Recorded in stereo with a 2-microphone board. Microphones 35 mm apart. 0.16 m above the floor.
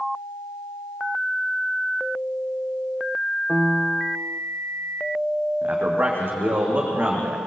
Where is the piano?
40° right (ahead or behind), 0.7 m.